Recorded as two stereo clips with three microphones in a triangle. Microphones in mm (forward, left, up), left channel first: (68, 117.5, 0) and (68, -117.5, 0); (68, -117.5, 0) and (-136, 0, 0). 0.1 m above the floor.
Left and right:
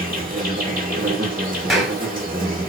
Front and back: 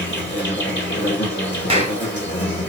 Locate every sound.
0.0 s an insect: 50° right, 2.5 m
1.7 s a clap: straight behind, 1.2 m